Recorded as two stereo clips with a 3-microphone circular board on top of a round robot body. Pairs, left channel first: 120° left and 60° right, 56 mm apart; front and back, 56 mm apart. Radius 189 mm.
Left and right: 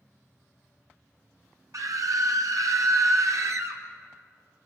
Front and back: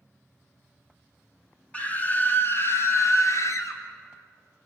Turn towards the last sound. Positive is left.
turn(degrees=-30)